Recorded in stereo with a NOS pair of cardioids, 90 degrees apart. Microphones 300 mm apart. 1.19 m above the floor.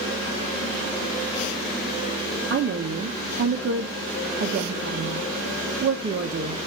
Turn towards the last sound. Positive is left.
turn(degrees=-40)